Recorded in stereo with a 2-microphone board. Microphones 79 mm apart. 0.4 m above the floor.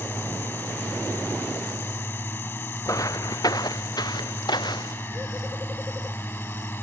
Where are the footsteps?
40° left (ahead or behind); by 5.0 s 65° left (ahead or behind).